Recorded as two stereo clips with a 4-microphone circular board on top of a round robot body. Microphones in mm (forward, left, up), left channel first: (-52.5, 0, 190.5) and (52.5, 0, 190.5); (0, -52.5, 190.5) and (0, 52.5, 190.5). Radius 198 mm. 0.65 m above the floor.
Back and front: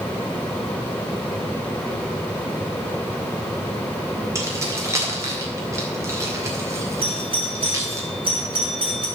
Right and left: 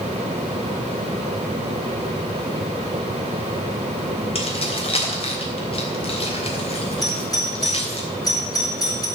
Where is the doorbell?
40° right, 5 m.